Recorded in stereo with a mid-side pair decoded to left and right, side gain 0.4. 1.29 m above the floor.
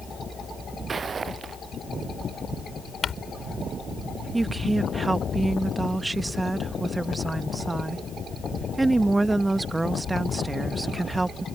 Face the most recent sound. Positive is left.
turn(degrees=-20)